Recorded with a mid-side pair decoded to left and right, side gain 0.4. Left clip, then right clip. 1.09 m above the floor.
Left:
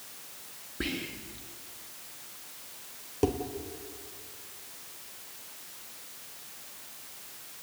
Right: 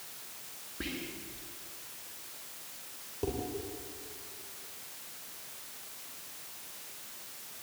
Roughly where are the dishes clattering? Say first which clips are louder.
Left 7 dB; ahead left.